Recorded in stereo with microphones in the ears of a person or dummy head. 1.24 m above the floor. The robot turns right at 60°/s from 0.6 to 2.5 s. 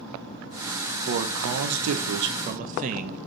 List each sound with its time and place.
1.1 s a man speaking: 125° right, 0.7 m; by 3.2 s 40° right, 0.7 m